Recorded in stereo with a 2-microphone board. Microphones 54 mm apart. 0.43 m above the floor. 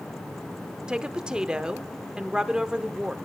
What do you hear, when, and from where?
0.9 s a woman speaking: 15° right (ahead or behind), 0.7 m